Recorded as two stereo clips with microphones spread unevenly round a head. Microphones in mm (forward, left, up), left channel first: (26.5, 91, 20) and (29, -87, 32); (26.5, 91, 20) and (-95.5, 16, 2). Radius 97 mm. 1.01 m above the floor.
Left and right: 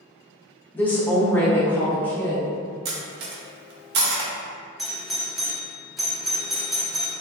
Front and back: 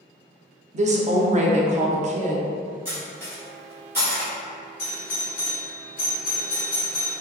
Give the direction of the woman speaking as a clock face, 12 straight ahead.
6 o'clock.